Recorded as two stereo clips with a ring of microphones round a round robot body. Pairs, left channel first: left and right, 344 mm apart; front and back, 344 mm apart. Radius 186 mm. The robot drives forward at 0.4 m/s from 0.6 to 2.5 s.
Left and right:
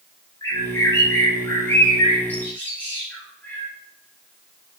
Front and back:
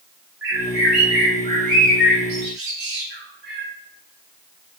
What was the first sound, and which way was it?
A bird, 165° left.